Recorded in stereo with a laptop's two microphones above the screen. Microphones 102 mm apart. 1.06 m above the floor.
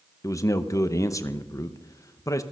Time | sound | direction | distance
0.2 | a man speaking | 30° left (ahead or behind) | 0.8 m